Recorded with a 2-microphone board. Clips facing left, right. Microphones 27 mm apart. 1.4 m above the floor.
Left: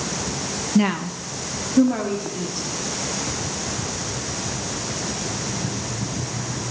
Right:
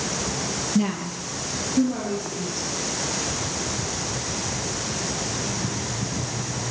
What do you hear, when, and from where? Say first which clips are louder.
0.8 s a woman speaking: left 6 dB; 40° left (ahead or behind), 1.0 m; by 2.7 s 60° left (ahead or behind), 4 m